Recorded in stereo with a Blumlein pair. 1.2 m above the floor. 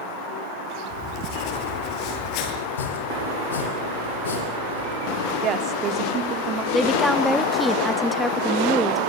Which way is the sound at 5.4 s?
30° right.